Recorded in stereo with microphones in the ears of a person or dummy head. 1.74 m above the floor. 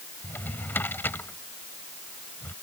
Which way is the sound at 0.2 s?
15° left (ahead or behind).